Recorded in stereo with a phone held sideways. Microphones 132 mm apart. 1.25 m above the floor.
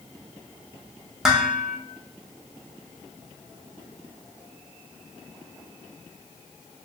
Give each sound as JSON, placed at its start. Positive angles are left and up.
{"t": 1.2, "sound": "dishes clattering", "side_deg": -5, "distance_m": 0.6}